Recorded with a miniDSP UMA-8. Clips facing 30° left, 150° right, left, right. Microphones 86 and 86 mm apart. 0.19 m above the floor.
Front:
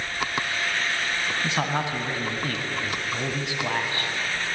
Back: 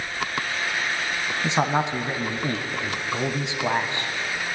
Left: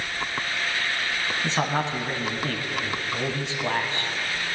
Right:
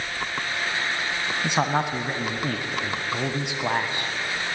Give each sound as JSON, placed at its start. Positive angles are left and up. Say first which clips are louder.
{"t": 1.4, "sound": "a man speaking", "louder": "back 6 dB, right 3 dB", "azimuth_deg": -135, "distance_m": 1.3}